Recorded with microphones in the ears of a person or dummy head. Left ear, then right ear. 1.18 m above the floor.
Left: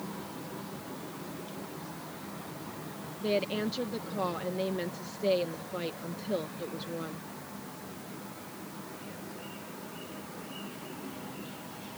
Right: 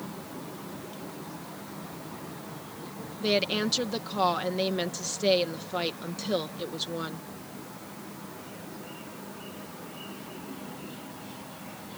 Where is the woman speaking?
35° right (ahead or behind).